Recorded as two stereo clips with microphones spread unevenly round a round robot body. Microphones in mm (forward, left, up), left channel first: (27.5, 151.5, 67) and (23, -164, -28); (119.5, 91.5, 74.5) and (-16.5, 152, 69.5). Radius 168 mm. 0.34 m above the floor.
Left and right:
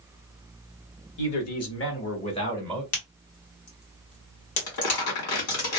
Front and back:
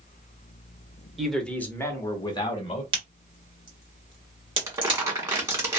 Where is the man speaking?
70° left, 1.2 m; by 2.8 s 25° right, 1.1 m.